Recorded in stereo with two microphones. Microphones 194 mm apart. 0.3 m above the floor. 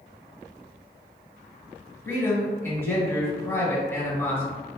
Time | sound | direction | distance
2.0 | a man speaking | 10° left (ahead or behind) | 1.3 m